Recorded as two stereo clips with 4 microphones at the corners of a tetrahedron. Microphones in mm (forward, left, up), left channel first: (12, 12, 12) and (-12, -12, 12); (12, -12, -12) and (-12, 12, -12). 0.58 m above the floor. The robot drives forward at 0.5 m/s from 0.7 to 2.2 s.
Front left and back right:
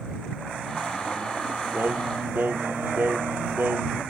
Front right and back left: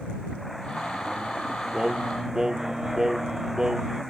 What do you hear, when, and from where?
1.7 s singing: 160° right